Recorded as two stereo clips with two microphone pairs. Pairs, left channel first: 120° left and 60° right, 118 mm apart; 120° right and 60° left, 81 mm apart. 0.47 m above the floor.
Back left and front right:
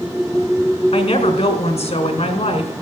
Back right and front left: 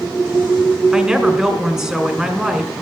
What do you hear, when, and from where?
0.9 s a woman speaking: 135° left, 2.0 m